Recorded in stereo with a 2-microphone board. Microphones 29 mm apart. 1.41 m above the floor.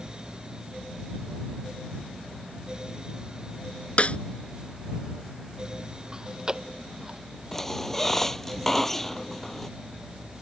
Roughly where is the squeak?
Centre.